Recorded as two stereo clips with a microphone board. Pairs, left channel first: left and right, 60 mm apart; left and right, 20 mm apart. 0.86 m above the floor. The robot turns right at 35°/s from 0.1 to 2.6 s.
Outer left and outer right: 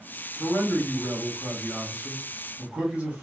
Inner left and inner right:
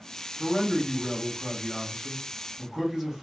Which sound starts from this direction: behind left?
A man speaking, at 0.4 s.